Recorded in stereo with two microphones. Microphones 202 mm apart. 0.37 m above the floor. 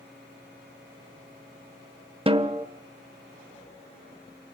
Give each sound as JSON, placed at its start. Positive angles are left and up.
{"t": 2.3, "sound": "a snare drum", "side_deg": -25, "distance_m": 1.1}